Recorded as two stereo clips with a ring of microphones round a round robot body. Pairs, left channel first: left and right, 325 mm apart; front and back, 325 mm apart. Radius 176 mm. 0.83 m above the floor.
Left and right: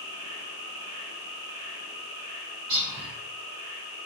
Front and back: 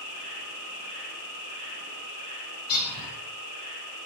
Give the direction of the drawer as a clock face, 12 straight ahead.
No drawer in this recording.